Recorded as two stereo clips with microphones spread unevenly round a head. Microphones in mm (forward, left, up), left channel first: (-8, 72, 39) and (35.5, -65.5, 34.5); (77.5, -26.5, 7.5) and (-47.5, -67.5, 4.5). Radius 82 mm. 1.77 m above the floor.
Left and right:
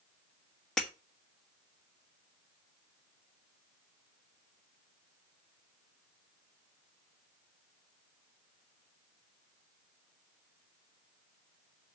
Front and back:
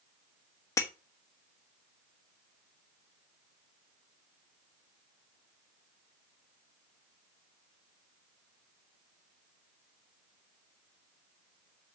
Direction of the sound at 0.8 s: 30° left.